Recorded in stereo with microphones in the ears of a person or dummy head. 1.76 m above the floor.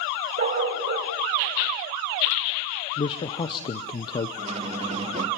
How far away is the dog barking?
About 3.5 m.